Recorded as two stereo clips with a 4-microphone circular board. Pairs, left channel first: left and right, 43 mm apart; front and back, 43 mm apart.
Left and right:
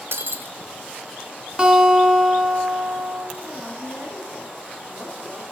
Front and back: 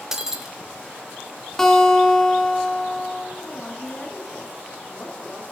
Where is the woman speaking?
70° right, 3 m.